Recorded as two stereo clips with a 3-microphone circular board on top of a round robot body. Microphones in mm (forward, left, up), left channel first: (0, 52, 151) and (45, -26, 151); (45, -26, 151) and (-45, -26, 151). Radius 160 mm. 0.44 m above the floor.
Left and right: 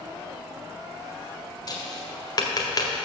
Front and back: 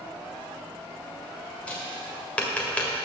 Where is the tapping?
75° left, 1.8 m.